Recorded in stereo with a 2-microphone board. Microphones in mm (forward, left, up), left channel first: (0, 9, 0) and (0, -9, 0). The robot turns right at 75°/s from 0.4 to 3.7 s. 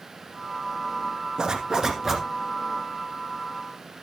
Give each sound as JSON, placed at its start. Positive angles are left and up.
{"t": 1.4, "sound": "a zipper", "azimuth_deg": -80, "distance_m": 1.9}